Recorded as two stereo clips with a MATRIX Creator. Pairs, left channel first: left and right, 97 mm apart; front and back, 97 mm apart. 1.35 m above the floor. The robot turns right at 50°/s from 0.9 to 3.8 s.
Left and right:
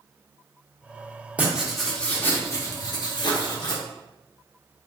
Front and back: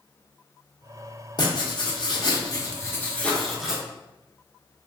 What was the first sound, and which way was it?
Writing, 20° right.